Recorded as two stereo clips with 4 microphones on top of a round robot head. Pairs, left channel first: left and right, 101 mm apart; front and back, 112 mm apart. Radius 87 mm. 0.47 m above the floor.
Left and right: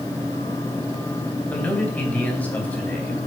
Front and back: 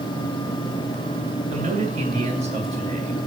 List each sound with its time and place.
1.5 s a man speaking: 165° left, 3.5 m